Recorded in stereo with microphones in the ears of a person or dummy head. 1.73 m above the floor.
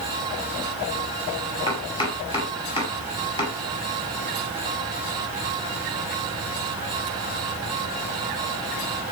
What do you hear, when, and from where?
1.7 s chopping: 25° left (ahead or behind), 5.5 m